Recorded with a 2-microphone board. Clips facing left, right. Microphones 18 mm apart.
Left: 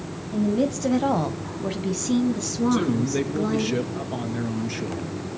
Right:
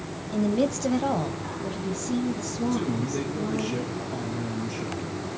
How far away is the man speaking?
About 2.5 m.